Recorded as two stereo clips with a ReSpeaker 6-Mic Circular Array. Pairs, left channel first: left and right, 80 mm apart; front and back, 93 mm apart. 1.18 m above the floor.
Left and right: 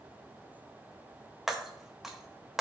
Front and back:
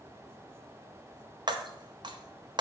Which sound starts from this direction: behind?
Breaking glass, at 1.5 s.